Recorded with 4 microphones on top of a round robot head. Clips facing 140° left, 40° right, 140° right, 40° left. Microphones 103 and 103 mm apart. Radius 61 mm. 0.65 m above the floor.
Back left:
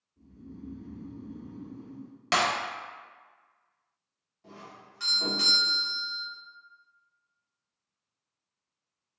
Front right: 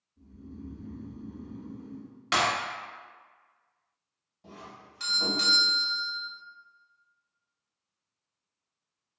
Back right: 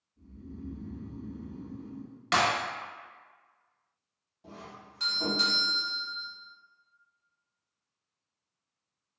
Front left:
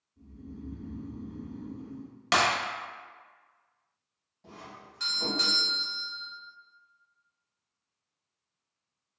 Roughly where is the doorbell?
Right.